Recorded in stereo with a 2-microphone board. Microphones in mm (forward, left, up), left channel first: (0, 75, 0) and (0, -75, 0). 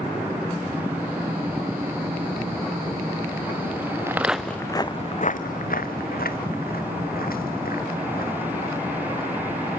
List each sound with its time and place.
4.1 s footsteps: 15° right (ahead or behind), 1.0 m; by 9.8 s 75° left (ahead or behind), 5 m